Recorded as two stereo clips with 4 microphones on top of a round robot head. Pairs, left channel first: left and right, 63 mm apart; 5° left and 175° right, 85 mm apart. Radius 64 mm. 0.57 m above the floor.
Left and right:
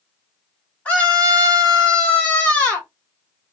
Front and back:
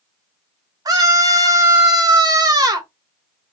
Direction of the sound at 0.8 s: 160° left.